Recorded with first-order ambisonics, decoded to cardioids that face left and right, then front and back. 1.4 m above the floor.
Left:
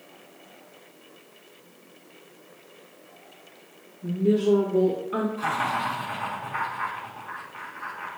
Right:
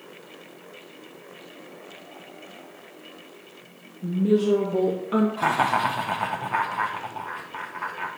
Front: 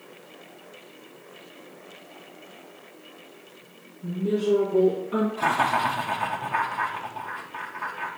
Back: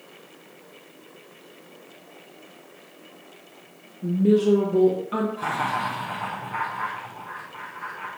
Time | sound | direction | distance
4.0 | a woman speaking | 145° right | 1.8 m
5.4 | laughter | 70° right | 0.9 m